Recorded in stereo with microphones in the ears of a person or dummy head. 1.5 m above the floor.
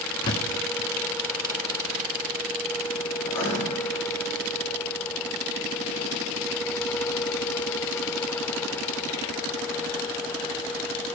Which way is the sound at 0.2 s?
20° left (ahead or behind).